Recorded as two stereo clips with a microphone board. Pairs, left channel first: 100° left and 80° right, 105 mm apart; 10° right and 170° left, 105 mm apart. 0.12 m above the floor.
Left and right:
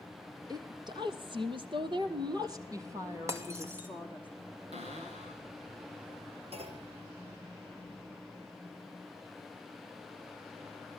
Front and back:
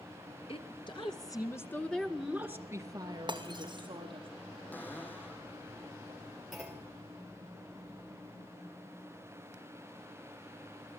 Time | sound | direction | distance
0.5 | a woman speaking | 35° right | 2.5 m
3.3 | breaking glass | 140° right | 3 m
4.7 | a cupboard door | 85° right | 5 m
6.5 | a clunk | 100° right | 4 m